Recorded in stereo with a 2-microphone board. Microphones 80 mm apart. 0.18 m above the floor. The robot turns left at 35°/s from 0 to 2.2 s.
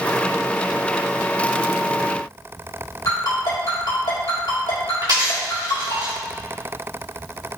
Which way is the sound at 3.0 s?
65° left (ahead or behind).